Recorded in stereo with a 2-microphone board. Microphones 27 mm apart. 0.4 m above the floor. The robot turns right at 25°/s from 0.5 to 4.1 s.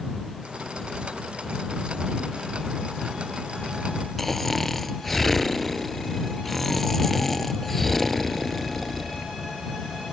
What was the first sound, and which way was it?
Snoring, 10° left (ahead or behind).